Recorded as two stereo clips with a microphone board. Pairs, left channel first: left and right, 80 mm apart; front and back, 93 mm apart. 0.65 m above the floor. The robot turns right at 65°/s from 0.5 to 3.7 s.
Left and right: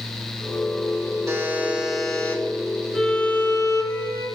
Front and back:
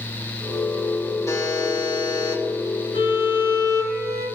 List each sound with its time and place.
1.3 s a buzzer: 50° right, 2 m; by 2.4 s 25° left, 2 m
2.9 s a violin: straight ahead, 3 m; by 4.3 s 50° left, 3 m